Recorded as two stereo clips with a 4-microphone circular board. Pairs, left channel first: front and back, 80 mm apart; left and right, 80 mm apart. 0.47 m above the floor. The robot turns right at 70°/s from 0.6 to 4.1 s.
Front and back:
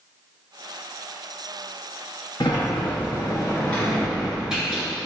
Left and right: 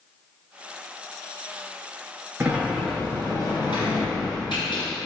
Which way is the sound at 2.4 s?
25° right.